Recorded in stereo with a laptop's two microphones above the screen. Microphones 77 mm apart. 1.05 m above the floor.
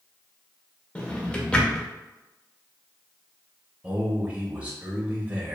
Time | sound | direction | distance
0.9 | a drawer | 15° left (ahead or behind) | 0.6 m
3.8 | a man speaking | 15° right (ahead or behind) | 0.6 m